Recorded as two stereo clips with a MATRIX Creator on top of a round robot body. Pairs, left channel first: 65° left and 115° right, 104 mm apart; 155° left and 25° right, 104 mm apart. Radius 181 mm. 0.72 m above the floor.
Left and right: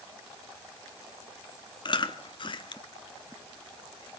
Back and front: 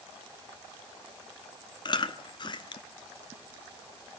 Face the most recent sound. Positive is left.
turn(degrees=110)